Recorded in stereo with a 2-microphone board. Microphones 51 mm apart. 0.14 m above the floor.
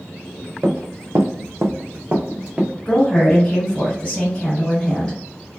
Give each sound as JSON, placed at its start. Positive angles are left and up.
{"t": 0.6, "sound": "running footsteps", "side_deg": -45, "distance_m": 0.8}
{"t": 2.9, "sound": "a woman speaking", "side_deg": 25, "distance_m": 1.7}